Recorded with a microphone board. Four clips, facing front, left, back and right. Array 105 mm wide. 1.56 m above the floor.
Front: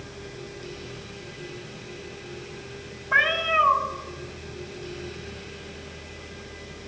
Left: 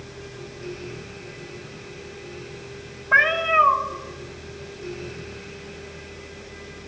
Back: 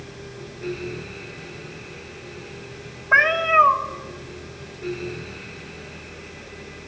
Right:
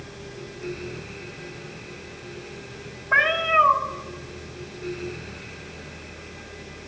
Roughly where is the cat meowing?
Behind.